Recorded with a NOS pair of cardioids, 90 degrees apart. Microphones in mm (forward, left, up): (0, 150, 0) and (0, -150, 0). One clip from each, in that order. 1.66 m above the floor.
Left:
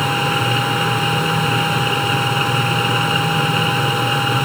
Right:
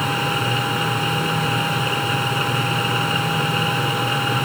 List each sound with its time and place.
0.0 s a machine running: 25° left